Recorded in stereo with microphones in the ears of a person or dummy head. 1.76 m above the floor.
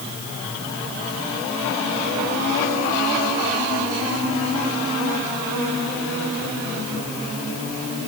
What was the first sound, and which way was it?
Only background noise.